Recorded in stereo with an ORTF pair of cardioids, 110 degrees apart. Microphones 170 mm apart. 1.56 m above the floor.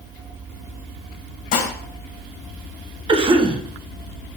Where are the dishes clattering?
70° left, 1.6 m.